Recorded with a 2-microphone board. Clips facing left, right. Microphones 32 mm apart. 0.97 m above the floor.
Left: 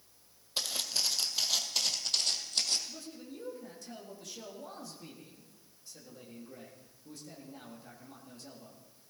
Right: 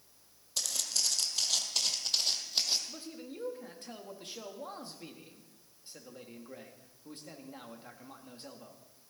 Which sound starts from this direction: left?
Footsteps, at 0.6 s.